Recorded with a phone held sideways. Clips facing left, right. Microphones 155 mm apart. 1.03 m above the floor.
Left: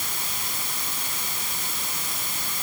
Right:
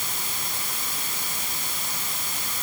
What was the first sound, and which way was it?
Only background noise.